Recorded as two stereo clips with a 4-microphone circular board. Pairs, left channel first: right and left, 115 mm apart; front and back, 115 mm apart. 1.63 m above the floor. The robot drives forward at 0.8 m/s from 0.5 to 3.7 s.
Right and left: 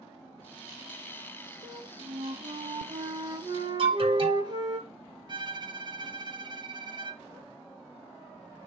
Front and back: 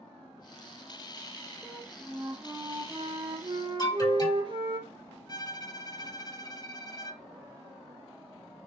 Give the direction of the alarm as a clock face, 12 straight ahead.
10 o'clock.